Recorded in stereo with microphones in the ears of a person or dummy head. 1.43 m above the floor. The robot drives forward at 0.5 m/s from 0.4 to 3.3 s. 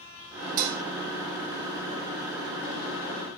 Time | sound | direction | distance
0.6 | dishes clattering | 50° right (ahead or behind) | 1.0 m